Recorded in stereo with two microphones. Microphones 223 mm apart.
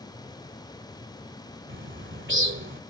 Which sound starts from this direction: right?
A bird, at 1.7 s.